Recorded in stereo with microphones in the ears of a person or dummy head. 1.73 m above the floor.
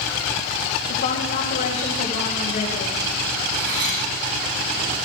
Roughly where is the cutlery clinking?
Right.